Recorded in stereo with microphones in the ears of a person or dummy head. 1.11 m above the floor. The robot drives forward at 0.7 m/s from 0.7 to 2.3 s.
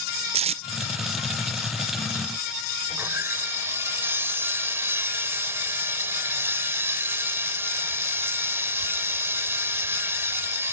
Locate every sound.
0.3 s tape being pulled: 30° right (ahead or behind)
2.9 s sawing: 10° right (ahead or behind)